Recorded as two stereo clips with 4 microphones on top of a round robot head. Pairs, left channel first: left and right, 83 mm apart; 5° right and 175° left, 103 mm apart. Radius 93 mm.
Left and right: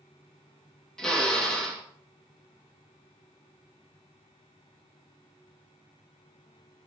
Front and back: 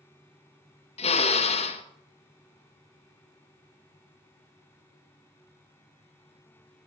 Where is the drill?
5° left, 1.8 m.